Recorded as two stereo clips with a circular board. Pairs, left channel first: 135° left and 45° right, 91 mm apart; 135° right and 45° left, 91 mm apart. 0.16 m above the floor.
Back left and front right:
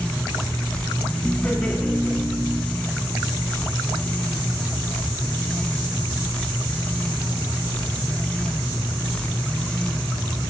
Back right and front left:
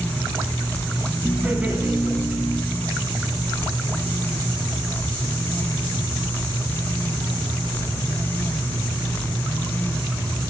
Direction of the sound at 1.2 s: 95° left.